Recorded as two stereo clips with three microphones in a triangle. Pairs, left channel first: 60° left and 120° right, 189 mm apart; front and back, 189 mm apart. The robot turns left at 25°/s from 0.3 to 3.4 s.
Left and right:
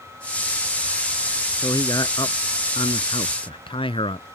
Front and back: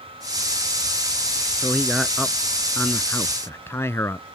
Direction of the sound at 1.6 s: 105° left.